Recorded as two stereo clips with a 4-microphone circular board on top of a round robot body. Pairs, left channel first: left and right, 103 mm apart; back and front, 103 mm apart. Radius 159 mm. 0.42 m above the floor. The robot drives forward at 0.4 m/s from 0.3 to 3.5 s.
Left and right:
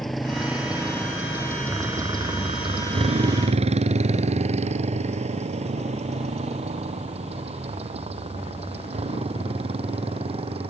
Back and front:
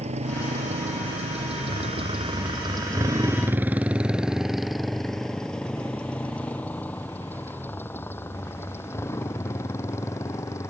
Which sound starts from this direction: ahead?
A motorcycle, at 0.0 s.